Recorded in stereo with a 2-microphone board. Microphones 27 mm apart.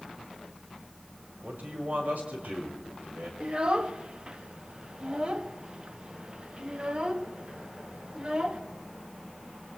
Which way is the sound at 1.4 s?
80° right.